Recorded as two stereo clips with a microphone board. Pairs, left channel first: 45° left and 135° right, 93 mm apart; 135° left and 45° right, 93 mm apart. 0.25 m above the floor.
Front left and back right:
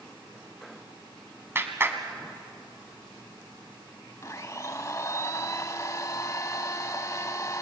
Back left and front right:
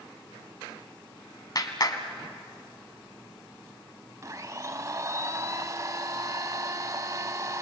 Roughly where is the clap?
Behind.